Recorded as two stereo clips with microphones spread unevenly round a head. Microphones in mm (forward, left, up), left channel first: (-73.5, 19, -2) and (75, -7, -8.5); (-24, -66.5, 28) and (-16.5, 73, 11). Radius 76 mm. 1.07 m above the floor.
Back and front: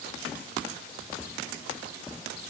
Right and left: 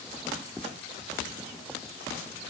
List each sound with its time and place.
Only background noise.